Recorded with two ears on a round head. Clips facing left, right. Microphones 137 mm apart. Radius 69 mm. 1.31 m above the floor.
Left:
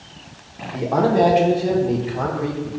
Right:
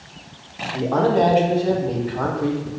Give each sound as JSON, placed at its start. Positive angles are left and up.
{"t": 0.7, "sound": "a man speaking", "side_deg": 10, "distance_m": 1.9}